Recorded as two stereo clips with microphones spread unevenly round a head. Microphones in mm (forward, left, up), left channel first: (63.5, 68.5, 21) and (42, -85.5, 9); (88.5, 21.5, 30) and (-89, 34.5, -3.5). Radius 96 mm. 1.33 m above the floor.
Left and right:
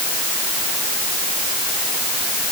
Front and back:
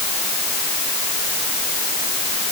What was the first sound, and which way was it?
Only background noise.